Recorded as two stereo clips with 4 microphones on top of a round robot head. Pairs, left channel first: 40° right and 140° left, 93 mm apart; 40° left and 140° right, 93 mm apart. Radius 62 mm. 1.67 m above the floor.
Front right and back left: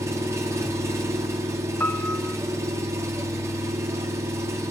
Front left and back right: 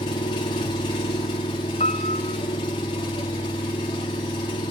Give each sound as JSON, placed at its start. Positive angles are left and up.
{"t": 0.0, "sound": "an engine running", "azimuth_deg": 80, "distance_m": 2.0}
{"t": 1.8, "sound": "a piano", "azimuth_deg": 35, "distance_m": 0.7}